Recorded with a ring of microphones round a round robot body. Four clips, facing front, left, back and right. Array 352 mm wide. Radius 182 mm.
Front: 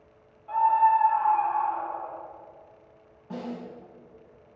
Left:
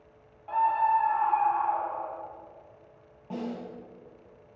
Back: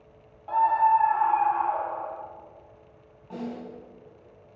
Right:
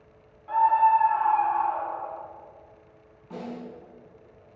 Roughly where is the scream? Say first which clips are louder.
Right 5 dB, even; behind.